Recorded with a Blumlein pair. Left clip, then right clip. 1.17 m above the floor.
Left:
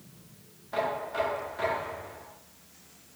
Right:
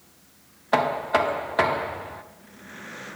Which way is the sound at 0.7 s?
40° right.